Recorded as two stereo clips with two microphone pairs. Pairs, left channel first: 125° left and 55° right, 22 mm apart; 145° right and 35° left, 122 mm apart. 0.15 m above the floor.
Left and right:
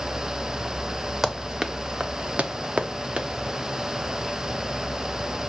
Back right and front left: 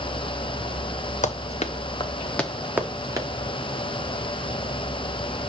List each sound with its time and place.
1.2 s running footsteps: 135° right, 1.4 m; by 3.3 s 25° right, 1.6 m